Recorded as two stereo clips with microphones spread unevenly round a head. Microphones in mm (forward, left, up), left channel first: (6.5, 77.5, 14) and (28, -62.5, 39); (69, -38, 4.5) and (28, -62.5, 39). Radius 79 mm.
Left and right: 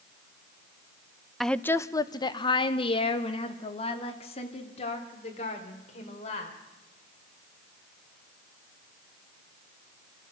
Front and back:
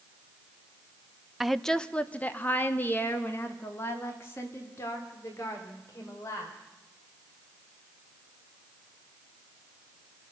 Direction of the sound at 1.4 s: 25° left.